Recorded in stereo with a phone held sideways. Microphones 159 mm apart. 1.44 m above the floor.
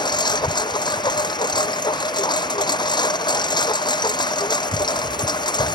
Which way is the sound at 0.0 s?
25° left (ahead or behind).